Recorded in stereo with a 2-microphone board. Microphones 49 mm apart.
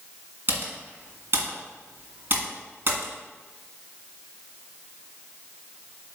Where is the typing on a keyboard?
50° right (ahead or behind), 1.9 m.